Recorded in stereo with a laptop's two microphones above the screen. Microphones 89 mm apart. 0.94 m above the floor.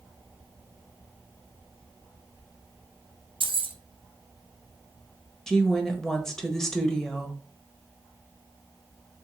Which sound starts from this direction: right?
Keys jangling, at 3.4 s.